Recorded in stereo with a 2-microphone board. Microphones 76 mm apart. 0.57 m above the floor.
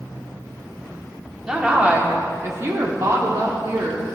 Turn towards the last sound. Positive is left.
turn(degrees=-55)  # may be behind; listen again after turning